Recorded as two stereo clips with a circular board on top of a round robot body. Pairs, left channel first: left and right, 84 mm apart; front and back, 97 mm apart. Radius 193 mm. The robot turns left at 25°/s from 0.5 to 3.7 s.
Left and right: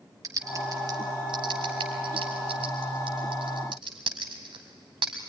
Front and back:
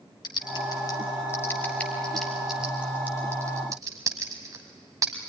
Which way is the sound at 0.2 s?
45° right.